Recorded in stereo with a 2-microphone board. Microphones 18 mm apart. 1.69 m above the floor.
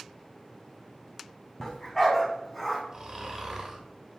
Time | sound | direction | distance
1.6 | a dog barking | 20° left (ahead or behind) | 3 m
2.9 | snoring | 30° right (ahead or behind) | 2.5 m